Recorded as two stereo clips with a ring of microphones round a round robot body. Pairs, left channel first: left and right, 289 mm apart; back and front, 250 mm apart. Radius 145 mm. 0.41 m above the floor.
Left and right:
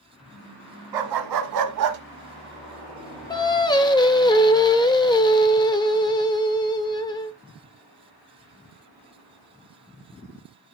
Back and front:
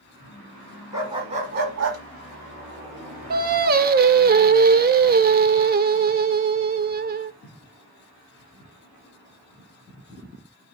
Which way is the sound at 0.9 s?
80° right.